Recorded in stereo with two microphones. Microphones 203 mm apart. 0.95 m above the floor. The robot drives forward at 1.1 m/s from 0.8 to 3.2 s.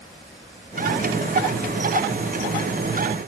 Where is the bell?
I don't hear a bell.